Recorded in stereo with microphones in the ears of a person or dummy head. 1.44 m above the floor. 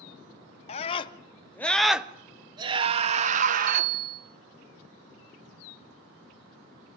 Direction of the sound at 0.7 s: 40° left (ahead or behind).